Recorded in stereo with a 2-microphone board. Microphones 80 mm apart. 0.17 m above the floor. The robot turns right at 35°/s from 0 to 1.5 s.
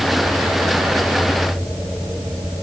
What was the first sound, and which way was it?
Only background noise.